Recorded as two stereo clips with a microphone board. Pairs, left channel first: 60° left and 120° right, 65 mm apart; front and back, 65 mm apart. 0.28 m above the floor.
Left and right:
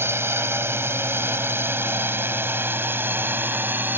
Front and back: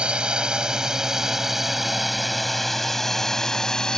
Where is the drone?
115° right; by 4.0 s 75° right.